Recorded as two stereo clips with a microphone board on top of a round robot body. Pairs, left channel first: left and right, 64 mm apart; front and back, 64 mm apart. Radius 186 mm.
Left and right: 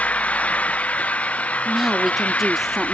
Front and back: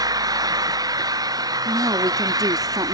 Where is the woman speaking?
175° right.